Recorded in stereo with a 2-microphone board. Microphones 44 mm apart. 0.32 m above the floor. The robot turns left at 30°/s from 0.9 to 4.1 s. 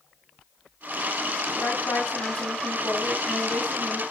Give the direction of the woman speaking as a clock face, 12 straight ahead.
9 o'clock.